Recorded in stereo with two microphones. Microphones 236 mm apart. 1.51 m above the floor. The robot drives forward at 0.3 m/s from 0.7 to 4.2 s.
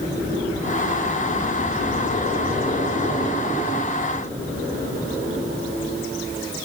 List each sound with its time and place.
Only background noise.